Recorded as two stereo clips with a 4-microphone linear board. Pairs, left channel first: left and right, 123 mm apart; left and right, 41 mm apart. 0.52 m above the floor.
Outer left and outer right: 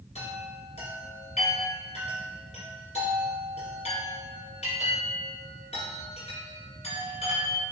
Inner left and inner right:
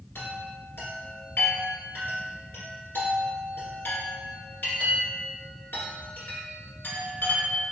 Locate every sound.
0.1 s a chime: 70° left (ahead or behind), 1.5 m